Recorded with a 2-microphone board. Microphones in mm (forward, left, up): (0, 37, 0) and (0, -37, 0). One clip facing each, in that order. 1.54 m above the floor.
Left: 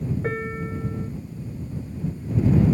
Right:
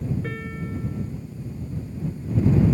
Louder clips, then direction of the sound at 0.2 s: Left 4 dB; 35° left (ahead or behind).